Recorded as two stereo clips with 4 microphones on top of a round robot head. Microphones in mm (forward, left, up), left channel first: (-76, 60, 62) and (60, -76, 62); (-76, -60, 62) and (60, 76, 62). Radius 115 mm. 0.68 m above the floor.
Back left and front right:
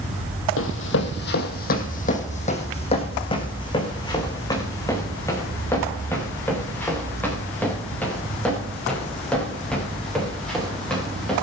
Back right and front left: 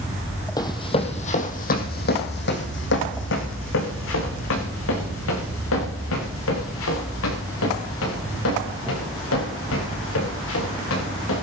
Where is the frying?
No frying in this recording.